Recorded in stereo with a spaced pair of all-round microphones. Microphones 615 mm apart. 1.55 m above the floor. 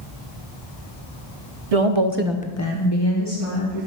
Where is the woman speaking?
75° right (ahead or behind), 0.9 m; by 3.9 s 55° left (ahead or behind), 2.5 m.